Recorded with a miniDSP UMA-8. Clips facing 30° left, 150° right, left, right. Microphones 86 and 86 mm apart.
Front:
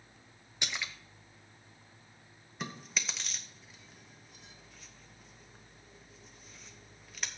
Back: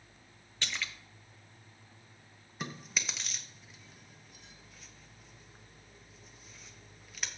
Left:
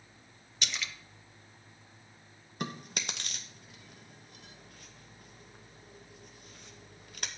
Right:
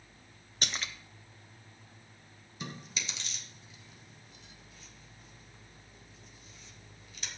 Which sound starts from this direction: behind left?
Chewing, at 2.6 s.